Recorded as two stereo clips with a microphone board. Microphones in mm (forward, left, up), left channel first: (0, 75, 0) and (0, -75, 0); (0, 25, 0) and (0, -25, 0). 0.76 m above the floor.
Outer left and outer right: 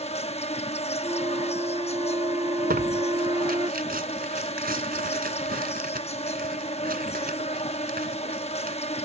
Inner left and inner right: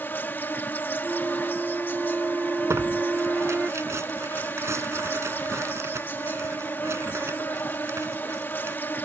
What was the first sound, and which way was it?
An insect, 45° left (ahead or behind).